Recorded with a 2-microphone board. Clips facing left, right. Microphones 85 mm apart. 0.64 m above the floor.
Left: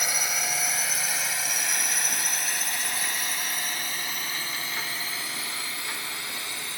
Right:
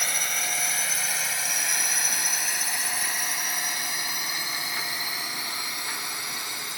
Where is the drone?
10° left (ahead or behind); by 6.8 s 20° right (ahead or behind).